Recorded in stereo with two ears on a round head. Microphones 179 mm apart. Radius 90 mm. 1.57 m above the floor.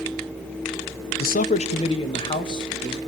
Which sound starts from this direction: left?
A man speaking, at 1.2 s.